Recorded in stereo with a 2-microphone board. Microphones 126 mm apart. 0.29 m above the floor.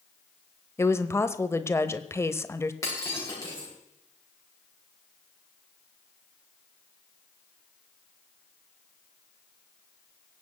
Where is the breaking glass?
25° left (ahead or behind), 8 m.